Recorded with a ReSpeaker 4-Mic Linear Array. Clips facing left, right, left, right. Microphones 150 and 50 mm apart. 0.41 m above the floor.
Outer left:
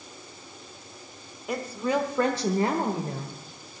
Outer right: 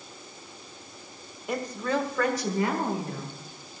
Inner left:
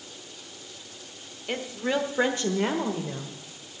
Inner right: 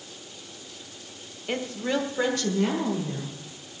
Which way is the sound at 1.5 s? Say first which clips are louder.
Outer left 1 dB, even; centre (ahead or behind).